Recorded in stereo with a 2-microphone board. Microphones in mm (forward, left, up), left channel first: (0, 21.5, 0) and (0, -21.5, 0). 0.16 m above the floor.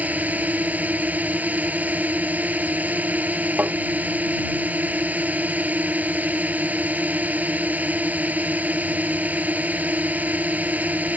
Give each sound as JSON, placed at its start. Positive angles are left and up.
{"t": 0.0, "sound": "a drone", "side_deg": -45}
{"t": 3.6, "sound": "tapping", "side_deg": -45}